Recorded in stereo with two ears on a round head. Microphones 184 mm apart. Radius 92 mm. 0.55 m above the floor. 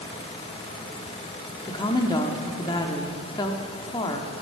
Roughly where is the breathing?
I don't hear breathing.